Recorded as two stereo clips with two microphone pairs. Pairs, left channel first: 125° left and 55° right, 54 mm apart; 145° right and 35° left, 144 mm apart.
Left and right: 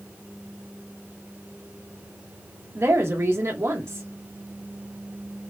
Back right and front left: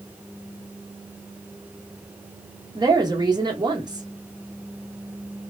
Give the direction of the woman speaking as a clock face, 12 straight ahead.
1 o'clock.